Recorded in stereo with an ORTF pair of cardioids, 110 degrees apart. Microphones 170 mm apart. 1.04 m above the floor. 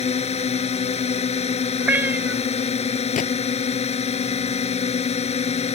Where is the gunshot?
50° left.